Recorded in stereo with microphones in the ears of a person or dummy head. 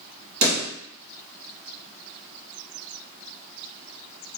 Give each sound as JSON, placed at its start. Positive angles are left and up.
{"t": 0.4, "sound": "a pop", "side_deg": -80, "distance_m": 1.8}